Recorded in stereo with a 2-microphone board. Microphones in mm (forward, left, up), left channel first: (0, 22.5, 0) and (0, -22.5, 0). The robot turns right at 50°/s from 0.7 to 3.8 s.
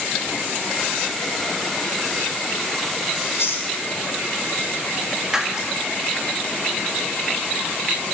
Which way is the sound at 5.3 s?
10° right (ahead or behind).